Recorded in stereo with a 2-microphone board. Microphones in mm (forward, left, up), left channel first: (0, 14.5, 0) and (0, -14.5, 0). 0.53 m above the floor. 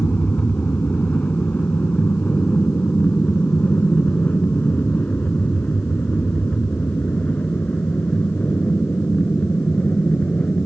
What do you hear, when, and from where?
0.0 s an aircraft: 70° left (ahead or behind); by 10.7 s 55° left (ahead or behind)